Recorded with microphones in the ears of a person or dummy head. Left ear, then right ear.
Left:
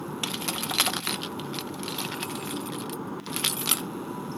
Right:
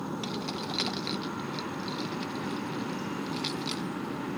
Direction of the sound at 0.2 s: 35° left (ahead or behind).